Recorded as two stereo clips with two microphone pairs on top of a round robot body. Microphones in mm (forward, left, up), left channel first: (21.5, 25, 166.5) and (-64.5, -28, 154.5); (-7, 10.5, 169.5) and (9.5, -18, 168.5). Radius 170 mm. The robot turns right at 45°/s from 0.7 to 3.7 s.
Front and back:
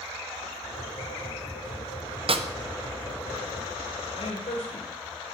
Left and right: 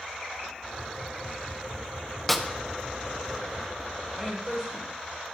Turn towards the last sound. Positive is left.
turn(degrees=5)